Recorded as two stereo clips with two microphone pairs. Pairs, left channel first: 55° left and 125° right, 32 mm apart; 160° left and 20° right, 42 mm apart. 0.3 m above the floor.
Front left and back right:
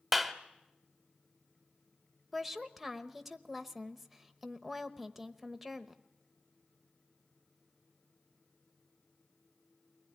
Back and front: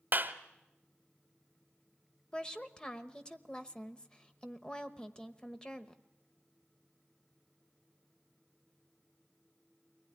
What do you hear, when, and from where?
0.1 s a clap: 35° right, 1.1 m
2.3 s a woman speaking: 160° left, 0.9 m